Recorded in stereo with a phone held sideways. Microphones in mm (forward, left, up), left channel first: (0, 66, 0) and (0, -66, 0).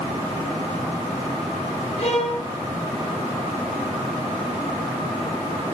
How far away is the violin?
About 3 m.